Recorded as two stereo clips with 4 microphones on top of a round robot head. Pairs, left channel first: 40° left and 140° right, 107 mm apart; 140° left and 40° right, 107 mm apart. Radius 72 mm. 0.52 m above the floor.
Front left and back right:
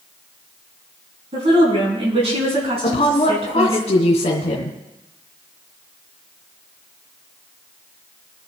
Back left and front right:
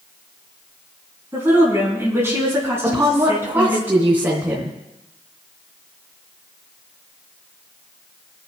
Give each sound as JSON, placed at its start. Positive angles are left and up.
{"t": 1.3, "sound": "a woman speaking", "azimuth_deg": -110, "distance_m": 6.0}
{"t": 2.8, "sound": "a woman speaking", "azimuth_deg": 25, "distance_m": 2.5}